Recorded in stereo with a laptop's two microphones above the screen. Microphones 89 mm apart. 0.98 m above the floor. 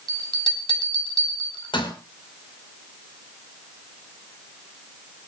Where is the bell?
65° left (ahead or behind), 4.5 m.